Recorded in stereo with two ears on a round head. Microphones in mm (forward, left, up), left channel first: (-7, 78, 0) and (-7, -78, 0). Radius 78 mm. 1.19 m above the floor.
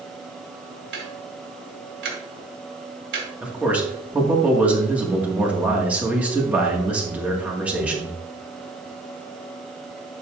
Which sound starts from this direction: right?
Ticking, at 0.9 s.